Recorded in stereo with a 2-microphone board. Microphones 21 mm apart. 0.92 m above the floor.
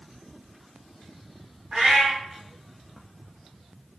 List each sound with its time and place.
1.7 s a cat meowing: 45° right (ahead or behind), 1.0 m